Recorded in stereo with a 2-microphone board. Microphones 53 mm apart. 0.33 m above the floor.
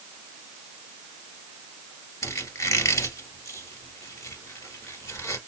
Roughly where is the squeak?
Left.